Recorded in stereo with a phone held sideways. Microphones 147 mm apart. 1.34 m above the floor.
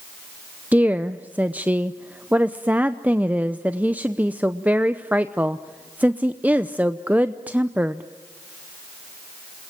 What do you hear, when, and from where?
0.7 s a woman speaking: 10° right (ahead or behind), 0.7 m